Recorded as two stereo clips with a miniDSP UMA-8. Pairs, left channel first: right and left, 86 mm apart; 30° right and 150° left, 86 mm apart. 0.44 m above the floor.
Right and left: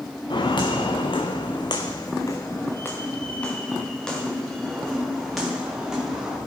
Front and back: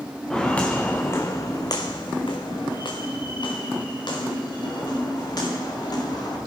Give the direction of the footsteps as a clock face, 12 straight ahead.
4 o'clock.